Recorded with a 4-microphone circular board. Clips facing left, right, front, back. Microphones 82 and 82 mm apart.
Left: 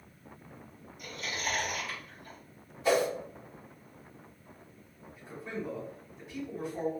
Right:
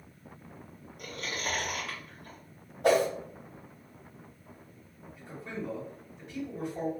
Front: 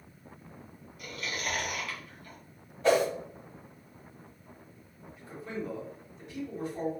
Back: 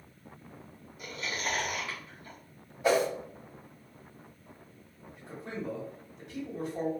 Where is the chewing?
115° right, 1.5 m.